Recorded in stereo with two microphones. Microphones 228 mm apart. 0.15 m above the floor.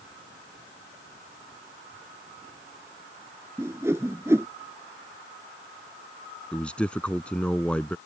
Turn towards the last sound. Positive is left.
turn(degrees=5)  # may be behind; listen again after turning